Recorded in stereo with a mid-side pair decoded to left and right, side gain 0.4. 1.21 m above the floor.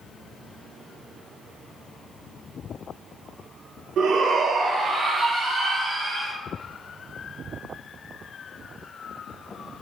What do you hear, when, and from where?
4.0 s a shout: 70° right, 0.6 m; by 6.3 s 20° right, 1.7 m